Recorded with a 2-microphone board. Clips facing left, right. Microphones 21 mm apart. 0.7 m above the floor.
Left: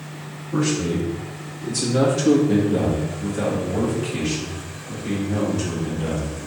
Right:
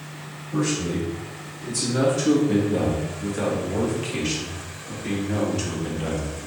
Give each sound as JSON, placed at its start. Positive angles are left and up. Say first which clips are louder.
{"t": 0.5, "sound": "a man speaking", "louder": "left 3 dB", "side_deg": 45, "distance_m": 1.4}